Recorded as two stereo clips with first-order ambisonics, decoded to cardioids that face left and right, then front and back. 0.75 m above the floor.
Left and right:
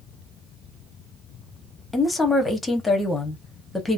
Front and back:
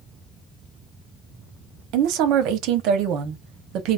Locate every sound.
1.9 s a woman speaking: 170° left, 0.9 m